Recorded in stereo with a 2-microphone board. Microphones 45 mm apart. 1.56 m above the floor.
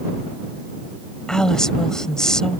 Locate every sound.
1.3 s a woman speaking: 15° left (ahead or behind)